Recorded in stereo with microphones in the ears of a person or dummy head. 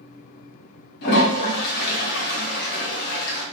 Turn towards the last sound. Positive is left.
turn(degrees=55)  # may be behind; listen again after turning